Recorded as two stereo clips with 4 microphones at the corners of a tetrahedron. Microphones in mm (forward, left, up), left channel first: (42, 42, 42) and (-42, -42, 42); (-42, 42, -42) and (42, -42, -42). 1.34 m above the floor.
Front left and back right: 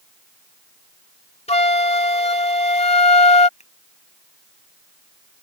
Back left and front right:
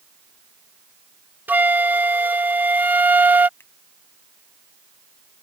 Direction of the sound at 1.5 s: 30° left.